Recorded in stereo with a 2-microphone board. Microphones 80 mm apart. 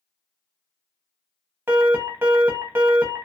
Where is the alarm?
25° right (ahead or behind), 0.8 m.